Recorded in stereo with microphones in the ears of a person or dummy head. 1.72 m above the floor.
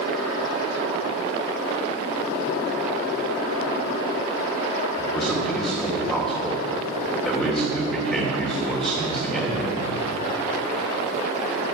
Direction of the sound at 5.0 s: 5° left (ahead or behind).